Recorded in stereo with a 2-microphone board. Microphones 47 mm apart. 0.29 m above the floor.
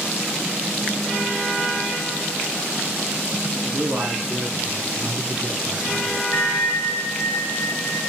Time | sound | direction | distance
3.6 | a man speaking | 45° right (ahead or behind) | 3.5 m
6.3 | a bell | 55° left (ahead or behind) | 2.5 m